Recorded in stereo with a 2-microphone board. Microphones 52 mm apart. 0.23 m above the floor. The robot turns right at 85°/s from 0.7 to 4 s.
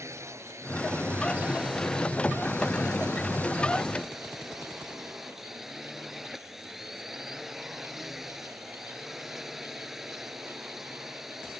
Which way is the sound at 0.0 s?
95° right.